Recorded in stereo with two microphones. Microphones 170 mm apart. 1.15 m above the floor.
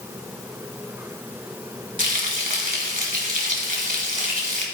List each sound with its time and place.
2.0 s frying: 55° right (ahead or behind), 1.7 m